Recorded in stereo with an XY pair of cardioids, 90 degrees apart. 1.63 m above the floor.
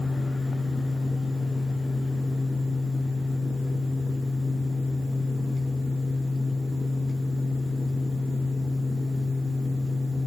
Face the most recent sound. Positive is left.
turn(degrees=10)